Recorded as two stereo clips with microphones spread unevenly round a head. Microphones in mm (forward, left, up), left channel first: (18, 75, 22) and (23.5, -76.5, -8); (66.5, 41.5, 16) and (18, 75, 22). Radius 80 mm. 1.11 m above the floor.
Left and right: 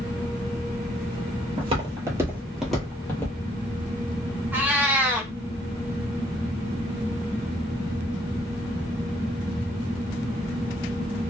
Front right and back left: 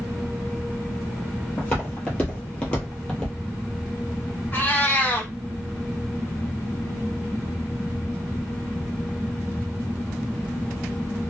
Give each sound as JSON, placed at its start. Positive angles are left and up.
{"t": 1.6, "sound": "footsteps", "azimuth_deg": -85, "distance_m": 1.2}
{"t": 4.5, "sound": "a cat meowing", "azimuth_deg": 0, "distance_m": 0.6}